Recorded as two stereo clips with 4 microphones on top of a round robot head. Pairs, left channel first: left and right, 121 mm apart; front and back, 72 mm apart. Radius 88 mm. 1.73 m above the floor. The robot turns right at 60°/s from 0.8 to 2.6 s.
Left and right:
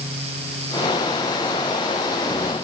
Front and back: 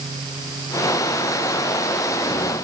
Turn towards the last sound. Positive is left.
No sound to turn to.